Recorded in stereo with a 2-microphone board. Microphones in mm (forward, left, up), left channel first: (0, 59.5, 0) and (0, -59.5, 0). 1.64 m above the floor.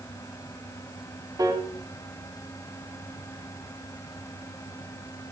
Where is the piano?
30° right (ahead or behind), 0.8 m.